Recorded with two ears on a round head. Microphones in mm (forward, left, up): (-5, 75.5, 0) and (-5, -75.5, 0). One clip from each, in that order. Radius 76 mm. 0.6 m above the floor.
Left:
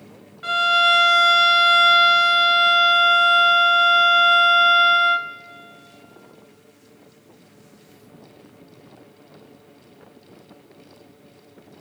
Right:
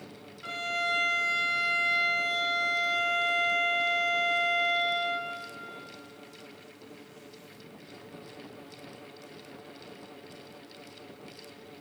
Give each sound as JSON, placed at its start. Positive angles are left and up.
{"t": 0.4, "sound": "a violin", "side_deg": 50, "distance_m": 0.8}